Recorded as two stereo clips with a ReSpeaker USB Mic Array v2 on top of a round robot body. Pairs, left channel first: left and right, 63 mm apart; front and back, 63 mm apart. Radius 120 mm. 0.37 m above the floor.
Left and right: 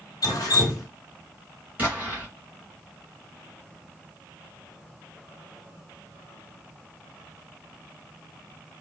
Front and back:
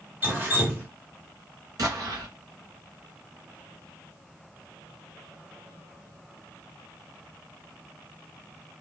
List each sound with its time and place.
0.2 s dripping: 120° left, 1.1 m
1.8 s an explosion: 155° right, 1.8 m